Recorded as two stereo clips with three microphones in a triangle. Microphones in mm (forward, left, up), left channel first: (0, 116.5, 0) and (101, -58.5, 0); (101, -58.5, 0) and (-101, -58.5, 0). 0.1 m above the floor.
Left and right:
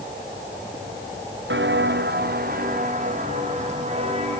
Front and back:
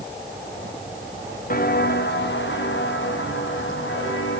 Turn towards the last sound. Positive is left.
turn(degrees=0)